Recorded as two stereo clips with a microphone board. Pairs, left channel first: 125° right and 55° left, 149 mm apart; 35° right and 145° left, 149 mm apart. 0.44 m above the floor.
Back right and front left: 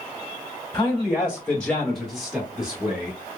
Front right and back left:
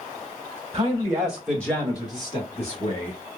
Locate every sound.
0.7 s a man speaking: 175° left, 1.1 m; by 3.2 s 25° right, 1.7 m